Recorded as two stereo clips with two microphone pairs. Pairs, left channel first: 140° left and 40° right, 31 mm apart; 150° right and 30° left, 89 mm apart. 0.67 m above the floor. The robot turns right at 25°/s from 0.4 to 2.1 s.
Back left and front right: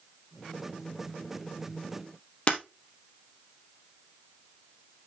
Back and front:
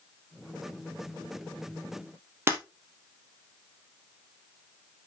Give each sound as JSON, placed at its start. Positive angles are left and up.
{"t": 2.5, "sound": "breaking glass", "azimuth_deg": 95, "distance_m": 2.5}